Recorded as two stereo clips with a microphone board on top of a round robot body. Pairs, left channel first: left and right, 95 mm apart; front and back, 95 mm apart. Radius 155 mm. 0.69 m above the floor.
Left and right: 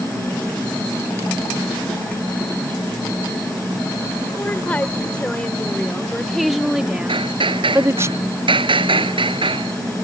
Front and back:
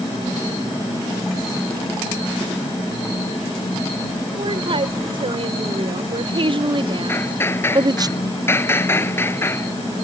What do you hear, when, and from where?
4.4 s a woman speaking: 165° left; by 8.1 s 145° right
7.1 s hammering: 65° right